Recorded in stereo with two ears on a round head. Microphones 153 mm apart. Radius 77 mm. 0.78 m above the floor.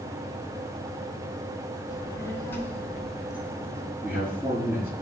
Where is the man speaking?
10° right (ahead or behind), 5.5 m.